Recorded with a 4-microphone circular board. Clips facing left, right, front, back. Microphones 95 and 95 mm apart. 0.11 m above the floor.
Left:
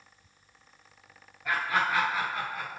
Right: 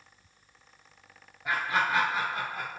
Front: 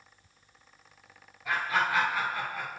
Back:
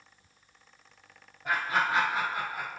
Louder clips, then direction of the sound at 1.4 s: Even, even; 155° right.